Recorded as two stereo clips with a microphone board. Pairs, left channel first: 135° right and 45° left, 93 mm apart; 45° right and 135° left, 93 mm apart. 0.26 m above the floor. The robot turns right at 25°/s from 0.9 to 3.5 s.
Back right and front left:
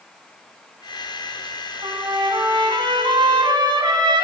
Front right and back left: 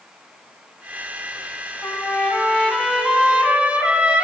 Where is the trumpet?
20° left, 1.4 m; by 4.2 s 60° left, 1.4 m.